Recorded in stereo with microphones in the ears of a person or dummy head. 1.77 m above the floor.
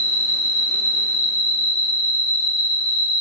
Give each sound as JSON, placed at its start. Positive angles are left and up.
{"t": 0.0, "sound": "an insect", "side_deg": 75, "distance_m": 1.4}